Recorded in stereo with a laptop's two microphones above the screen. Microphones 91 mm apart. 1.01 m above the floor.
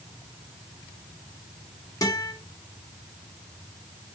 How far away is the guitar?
About 2.5 m.